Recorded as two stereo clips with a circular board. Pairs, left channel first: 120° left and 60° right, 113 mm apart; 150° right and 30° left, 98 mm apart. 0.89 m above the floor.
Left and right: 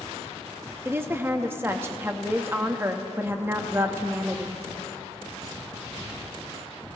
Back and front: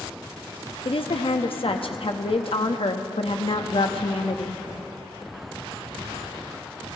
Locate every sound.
0.8 s a woman speaking: 130° right, 1.0 m